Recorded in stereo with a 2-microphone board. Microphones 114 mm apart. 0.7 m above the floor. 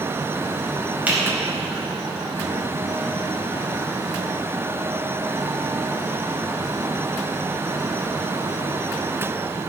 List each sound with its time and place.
1.1 s a finger snap: 15° right (ahead or behind), 3.5 m